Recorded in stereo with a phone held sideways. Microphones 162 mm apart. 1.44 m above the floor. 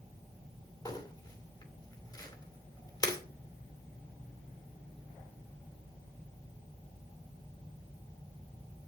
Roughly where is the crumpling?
Left.